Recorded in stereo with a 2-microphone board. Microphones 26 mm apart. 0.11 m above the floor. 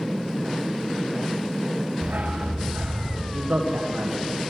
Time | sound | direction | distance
2.0 | a dog barking | 70° right (ahead or behind) | 5.5 m
3.3 | a man speaking | 65° right (ahead or behind) | 6 m